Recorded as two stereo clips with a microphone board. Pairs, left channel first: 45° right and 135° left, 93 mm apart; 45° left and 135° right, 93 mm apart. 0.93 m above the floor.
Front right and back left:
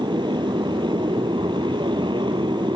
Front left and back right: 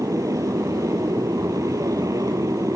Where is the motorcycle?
170° left.